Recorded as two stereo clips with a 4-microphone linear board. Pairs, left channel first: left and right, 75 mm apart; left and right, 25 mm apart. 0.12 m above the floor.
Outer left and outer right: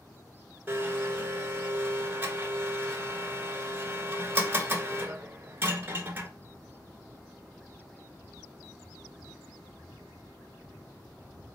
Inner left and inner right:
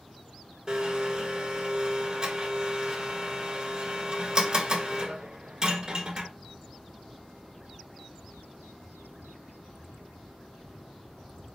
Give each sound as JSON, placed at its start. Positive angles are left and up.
{"t": 0.7, "sound": "a blender", "side_deg": -30, "distance_m": 1.1}